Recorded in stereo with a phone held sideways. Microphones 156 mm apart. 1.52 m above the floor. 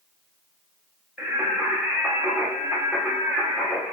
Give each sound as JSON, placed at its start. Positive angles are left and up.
{"t": 1.2, "sound": "singing", "side_deg": -5, "distance_m": 0.5}